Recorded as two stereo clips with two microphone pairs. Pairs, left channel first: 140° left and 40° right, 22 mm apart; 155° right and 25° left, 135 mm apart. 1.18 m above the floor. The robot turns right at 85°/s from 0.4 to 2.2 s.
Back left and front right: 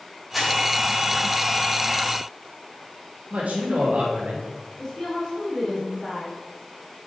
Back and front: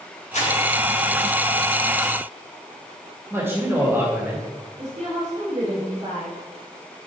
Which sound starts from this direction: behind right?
Crumpling, at 0.3 s.